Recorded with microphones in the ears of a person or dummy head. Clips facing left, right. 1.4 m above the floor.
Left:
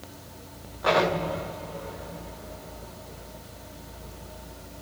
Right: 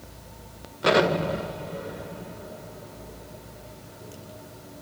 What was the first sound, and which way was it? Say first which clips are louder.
An explosion: right 3 dB; 40° right (ahead or behind).